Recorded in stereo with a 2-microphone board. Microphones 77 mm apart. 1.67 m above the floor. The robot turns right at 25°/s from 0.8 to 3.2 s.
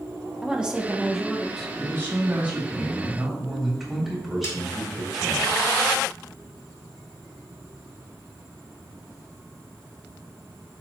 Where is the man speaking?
40° right, 3.5 m; by 5.4 s 5° right, 3.5 m.